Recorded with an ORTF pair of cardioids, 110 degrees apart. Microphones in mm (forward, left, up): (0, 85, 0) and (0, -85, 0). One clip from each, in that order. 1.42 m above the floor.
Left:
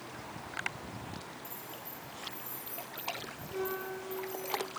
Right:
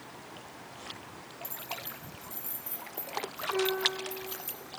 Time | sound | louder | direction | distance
1.4 | keys jangling | right 5 dB | 55° right | 7.5 m
3.5 | a piano | right 7 dB | 50° right | 5.5 m